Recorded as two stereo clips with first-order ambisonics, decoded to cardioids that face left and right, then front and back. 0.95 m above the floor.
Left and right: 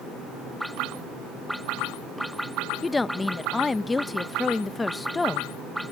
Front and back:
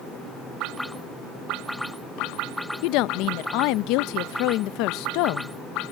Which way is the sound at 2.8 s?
10° left.